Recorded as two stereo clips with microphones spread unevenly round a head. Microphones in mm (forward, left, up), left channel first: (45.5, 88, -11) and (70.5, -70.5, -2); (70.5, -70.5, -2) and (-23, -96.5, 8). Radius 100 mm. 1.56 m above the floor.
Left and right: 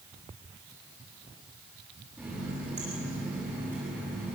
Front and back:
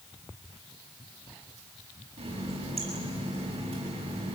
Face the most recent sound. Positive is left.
turn(degrees=-160)